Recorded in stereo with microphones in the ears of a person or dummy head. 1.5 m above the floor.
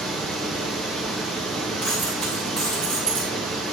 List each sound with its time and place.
0.0 s a fan: 5° left (ahead or behind), 1.1 m
1.8 s a dropped coin: 10° left (ahead or behind), 2.5 m